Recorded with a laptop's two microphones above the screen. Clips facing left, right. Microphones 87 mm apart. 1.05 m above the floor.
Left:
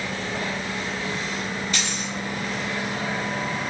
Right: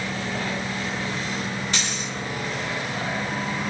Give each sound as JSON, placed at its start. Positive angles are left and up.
{"t": 1.7, "sound": "a dropped coin", "side_deg": -75, "distance_m": 1.6}